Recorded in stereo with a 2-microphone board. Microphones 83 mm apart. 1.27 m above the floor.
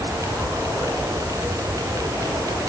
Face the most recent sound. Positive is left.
No sound to turn to.